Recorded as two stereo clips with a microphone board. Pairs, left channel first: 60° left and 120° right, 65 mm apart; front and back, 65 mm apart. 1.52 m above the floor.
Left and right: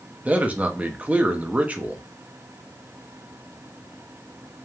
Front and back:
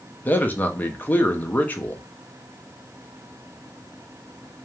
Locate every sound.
0.2 s a man speaking: 55° right, 0.5 m